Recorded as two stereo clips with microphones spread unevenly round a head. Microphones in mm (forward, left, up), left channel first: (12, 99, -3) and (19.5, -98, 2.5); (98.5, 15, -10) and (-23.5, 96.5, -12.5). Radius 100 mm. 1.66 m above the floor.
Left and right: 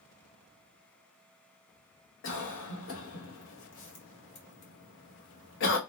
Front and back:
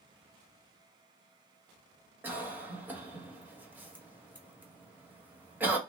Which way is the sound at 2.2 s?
65° left.